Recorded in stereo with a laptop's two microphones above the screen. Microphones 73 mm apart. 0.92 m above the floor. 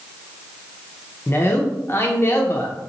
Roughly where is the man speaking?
Left.